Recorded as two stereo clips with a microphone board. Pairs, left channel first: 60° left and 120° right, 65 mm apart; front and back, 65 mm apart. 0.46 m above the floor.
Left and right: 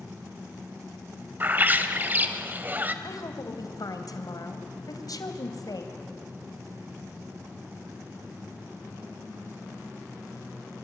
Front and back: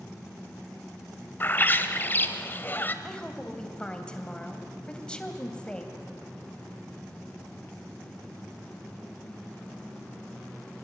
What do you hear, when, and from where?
1.4 s a bird: 60° right, 1.4 m
3.0 s a woman speaking: 75° left, 3 m